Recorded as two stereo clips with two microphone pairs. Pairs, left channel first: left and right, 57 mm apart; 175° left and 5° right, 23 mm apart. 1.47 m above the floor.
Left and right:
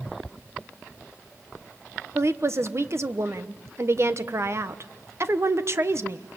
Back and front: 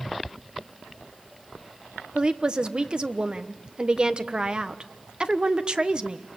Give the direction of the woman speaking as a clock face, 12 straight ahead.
2 o'clock.